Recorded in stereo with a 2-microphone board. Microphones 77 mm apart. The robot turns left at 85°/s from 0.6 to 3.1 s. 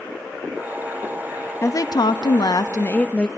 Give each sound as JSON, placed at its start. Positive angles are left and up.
{"t": 1.6, "sound": "a woman speaking", "azimuth_deg": 145, "distance_m": 0.7}